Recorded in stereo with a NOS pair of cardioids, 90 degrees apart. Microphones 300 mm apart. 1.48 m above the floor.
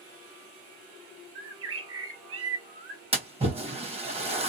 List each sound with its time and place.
1.4 s a bird: 50° right, 1.7 m
3.1 s a splash: 20° right, 1.3 m